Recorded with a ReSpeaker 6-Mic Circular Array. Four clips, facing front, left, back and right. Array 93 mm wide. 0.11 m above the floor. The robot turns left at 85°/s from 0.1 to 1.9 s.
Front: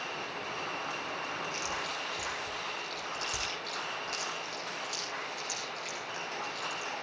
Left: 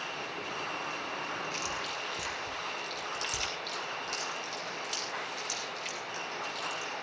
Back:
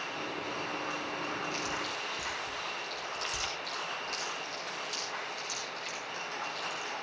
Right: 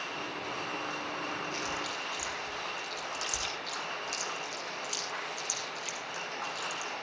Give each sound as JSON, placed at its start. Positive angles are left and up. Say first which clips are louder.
{"t": 1.5, "sound": "chewing", "louder": "right 1 dB, back 1 dB", "azimuth_deg": 120, "distance_m": 7.5}